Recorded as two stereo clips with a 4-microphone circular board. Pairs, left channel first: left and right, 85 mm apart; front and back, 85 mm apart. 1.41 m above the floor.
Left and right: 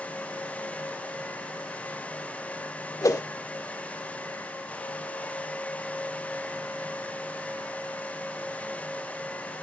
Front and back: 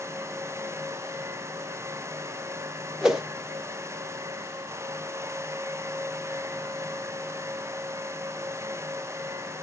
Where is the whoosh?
100° left, 0.9 m.